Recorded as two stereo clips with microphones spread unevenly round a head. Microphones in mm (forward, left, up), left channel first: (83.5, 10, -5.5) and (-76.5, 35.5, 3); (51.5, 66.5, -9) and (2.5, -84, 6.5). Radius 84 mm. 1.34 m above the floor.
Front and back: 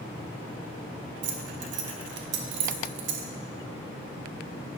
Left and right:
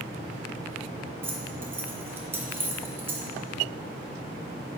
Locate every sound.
1.2 s keys jangling: 175° left, 0.7 m